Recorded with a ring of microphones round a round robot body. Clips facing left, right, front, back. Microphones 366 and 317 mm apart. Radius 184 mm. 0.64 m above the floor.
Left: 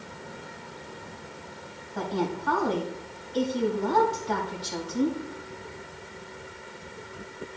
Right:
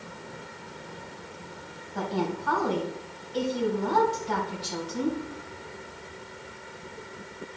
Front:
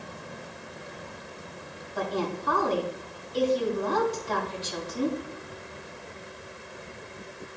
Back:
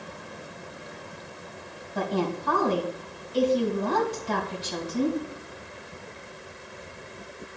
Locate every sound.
1.9 s a woman speaking: 145° right, 3.5 m